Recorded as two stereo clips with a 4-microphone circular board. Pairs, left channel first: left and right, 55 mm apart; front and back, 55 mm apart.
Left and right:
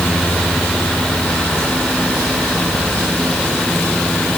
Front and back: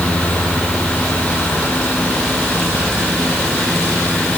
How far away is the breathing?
I don't hear breathing.